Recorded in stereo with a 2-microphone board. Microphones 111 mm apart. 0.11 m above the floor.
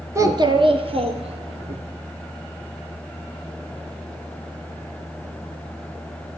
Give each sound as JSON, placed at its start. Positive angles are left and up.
{"t": 0.1, "sound": "a child speaking", "side_deg": -25, "distance_m": 0.8}